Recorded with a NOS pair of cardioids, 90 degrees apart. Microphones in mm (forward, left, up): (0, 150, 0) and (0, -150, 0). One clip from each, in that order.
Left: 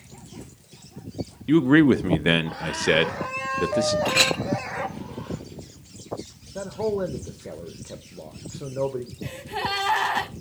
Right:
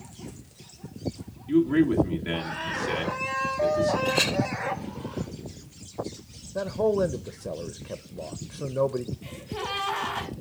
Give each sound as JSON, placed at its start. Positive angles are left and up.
{"t": 1.5, "sound": "a man speaking", "azimuth_deg": 65, "distance_m": 0.7}
{"t": 4.0, "sound": "a clink", "azimuth_deg": 30, "distance_m": 0.8}
{"t": 6.5, "sound": "a man speaking", "azimuth_deg": -10, "distance_m": 0.5}
{"t": 9.2, "sound": "a gasp", "azimuth_deg": 40, "distance_m": 2.0}